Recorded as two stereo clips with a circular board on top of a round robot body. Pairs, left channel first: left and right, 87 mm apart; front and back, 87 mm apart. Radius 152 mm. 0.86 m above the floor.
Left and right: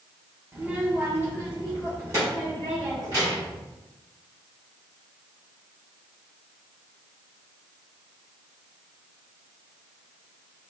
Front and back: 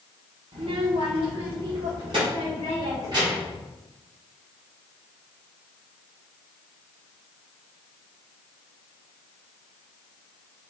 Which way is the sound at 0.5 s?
160° right.